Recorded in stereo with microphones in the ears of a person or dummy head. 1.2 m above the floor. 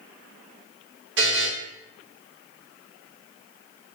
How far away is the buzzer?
About 1.1 m.